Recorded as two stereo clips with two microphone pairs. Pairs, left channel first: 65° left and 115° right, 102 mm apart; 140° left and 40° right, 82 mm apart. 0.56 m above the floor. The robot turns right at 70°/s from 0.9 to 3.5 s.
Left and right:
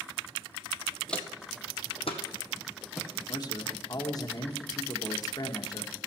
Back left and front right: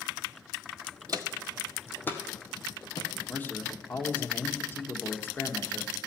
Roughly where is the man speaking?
Left.